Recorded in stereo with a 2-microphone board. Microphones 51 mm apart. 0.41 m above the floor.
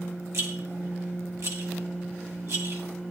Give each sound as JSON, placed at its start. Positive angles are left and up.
{"t": 0.3, "sound": "a rattle", "side_deg": -65, "distance_m": 2.5}